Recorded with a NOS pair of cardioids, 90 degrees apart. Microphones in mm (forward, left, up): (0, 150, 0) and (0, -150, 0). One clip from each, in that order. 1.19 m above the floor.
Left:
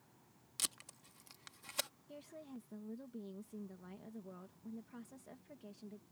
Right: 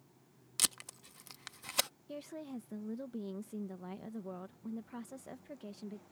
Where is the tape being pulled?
45° right.